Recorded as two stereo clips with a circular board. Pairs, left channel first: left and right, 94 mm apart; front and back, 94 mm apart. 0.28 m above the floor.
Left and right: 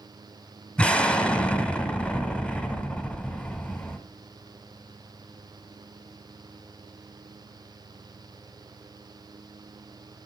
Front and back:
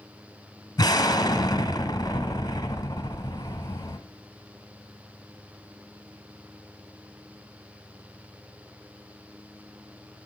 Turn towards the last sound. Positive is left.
turn(degrees=15)